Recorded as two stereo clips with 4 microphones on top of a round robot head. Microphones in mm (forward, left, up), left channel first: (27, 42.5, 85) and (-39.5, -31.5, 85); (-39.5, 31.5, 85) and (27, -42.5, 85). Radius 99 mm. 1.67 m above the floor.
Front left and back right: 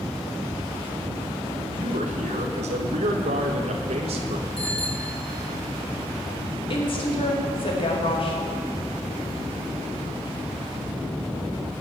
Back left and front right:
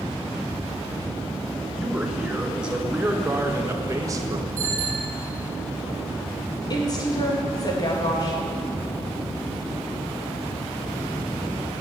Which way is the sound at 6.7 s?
80° left.